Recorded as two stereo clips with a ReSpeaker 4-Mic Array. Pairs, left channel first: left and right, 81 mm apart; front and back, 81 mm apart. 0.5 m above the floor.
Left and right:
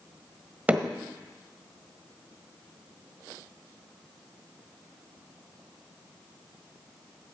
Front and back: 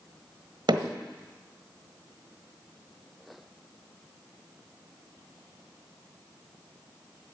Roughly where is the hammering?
Behind.